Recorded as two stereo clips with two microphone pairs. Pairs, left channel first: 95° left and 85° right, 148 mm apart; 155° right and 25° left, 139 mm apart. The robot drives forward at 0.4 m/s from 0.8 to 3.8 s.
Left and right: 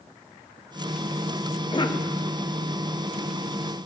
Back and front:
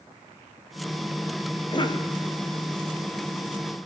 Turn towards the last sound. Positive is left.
turn(degrees=160)